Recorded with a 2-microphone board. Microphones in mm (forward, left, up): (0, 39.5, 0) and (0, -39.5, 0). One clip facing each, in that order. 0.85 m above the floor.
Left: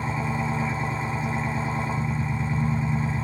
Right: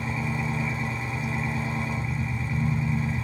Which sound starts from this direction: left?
An engine running, at 0.0 s.